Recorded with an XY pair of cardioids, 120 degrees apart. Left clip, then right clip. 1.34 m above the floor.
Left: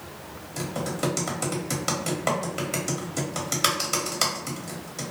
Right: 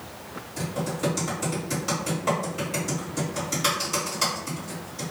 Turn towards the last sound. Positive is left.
turn(degrees=55)